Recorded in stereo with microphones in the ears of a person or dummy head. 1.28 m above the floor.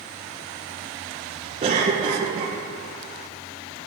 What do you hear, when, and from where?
1.6 s a cough: 30° right (ahead or behind), 1.3 m